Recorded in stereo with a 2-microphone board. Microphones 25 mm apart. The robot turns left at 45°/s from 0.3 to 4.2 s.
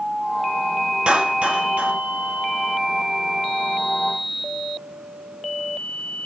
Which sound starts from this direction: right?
A clap, at 1.1 s.